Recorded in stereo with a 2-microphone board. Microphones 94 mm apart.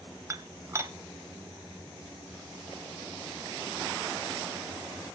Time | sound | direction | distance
0.3 | dishes clattering | 30° right (ahead or behind) | 0.8 m